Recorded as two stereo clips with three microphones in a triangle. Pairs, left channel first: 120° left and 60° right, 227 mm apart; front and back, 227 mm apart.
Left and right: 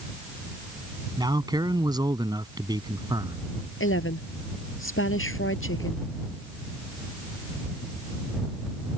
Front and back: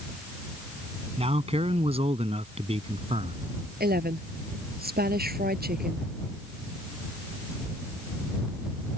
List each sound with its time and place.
1.2 s a man speaking: 125° right
3.8 s a woman speaking: 135° left